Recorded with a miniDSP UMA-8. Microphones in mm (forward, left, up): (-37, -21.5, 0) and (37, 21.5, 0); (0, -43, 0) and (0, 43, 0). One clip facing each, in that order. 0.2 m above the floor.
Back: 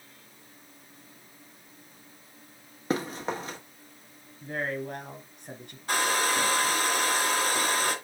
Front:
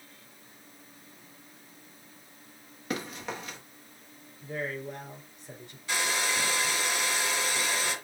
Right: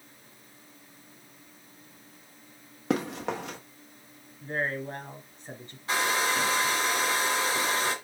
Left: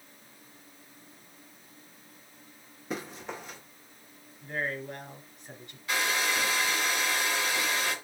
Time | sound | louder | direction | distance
2.9 | running footsteps | back 5 dB, right 8 dB | 95° right | 2.5 m
4.4 | a man speaking | back 3 dB, right 3 dB | 145° right | 3 m
5.9 | a hair dryer | back 4 dB, right 3 dB | 135° right | 2 m